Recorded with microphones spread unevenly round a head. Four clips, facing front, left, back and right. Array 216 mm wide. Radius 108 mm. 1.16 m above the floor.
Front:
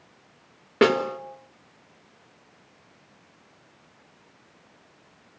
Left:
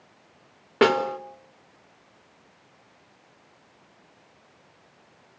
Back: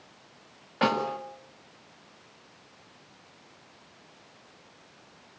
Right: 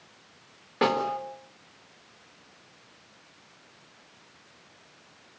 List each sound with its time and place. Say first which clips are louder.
0.8 s a snare drum: left 5 dB, front 6 dB; 40° left, 3 m